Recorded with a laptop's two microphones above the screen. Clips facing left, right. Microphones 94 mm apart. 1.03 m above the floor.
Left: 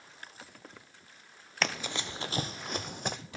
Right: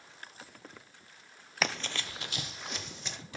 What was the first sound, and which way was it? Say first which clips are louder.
Running footsteps: even; 5° right (ahead or behind).